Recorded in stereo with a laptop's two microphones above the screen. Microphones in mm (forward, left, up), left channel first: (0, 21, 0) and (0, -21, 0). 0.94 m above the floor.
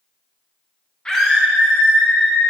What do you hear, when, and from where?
1.1 s a scream: 20° left (ahead or behind), 0.7 m; by 2.5 s 60° right (ahead or behind), 1.8 m